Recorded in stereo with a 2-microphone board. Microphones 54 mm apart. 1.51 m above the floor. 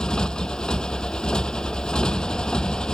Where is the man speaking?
I don't hear a man speaking.